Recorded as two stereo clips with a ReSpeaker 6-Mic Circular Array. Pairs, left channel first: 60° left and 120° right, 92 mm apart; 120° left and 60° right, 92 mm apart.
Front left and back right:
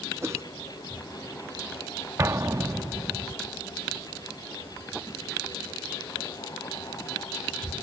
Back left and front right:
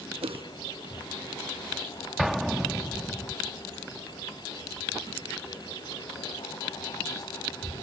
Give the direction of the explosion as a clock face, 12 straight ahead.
5 o'clock.